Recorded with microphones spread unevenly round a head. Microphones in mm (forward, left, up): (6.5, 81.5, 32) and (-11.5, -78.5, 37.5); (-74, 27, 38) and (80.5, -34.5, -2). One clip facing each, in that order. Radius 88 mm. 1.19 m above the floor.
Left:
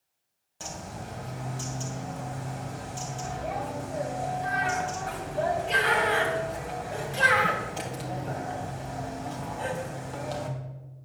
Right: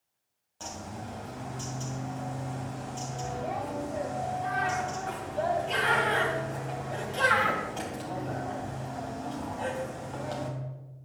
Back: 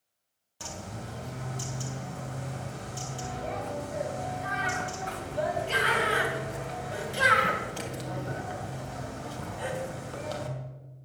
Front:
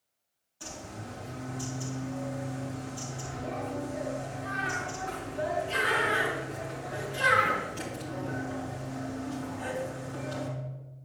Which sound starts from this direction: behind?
A bird, at 0.6 s.